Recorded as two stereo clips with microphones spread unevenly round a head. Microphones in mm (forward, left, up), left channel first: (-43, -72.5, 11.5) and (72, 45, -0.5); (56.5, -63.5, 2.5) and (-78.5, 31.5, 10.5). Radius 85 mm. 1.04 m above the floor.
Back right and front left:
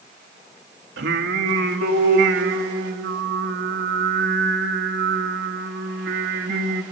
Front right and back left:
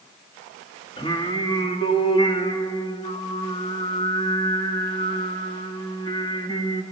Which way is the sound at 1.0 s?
30° left.